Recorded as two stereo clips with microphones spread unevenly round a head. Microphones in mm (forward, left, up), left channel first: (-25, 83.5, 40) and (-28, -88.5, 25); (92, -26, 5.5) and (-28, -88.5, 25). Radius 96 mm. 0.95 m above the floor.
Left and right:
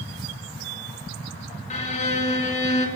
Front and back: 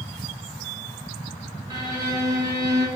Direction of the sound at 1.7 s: 135° left.